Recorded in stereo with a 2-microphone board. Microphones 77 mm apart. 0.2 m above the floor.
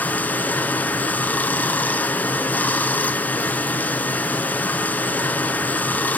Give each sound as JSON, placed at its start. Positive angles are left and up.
{"t": 0.0, "sound": "running water", "side_deg": 20, "distance_m": 0.8}